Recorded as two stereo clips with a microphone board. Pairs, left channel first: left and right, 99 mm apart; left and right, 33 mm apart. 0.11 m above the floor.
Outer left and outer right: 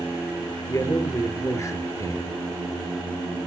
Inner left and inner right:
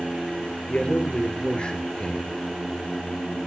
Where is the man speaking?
35° left (ahead or behind), 2 m.